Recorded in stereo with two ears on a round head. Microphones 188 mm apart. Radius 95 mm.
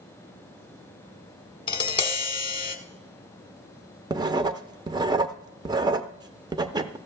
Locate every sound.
1.7 s tapping: 25° left (ahead or behind), 1.3 m
4.1 s writing: 20° right (ahead or behind), 0.6 m